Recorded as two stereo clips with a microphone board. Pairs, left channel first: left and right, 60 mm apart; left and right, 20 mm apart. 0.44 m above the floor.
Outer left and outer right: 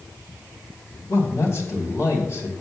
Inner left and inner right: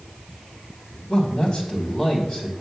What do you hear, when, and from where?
1.1 s a man speaking: 60° left (ahead or behind), 3.5 m